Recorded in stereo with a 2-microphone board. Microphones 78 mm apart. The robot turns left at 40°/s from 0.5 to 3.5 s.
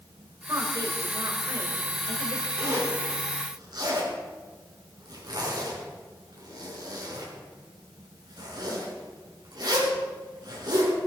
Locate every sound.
0.5 s a woman speaking: 50° right, 2.5 m; by 2.5 s 125° right, 2.5 m
2.6 s a zipper: 25° right (ahead or behind), 5.5 m; by 10.9 s 65° right (ahead or behind), 5.5 m